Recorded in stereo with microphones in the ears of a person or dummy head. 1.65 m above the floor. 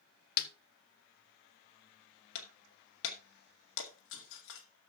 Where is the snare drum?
55° left (ahead or behind), 1.3 m.